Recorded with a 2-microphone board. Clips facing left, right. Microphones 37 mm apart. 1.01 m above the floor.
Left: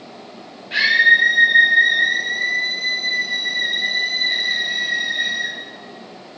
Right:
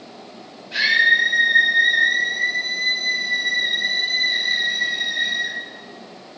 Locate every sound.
0.7 s a scream: 60° left (ahead or behind), 5.5 m